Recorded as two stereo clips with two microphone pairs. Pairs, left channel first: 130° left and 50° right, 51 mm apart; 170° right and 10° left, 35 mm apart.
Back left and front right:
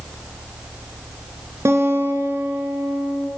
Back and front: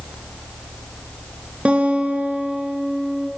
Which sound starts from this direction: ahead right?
A guitar, at 1.6 s.